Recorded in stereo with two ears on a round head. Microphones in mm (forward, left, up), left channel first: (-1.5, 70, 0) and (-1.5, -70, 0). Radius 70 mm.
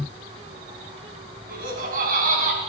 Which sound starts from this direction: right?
Laughter, at 1.5 s.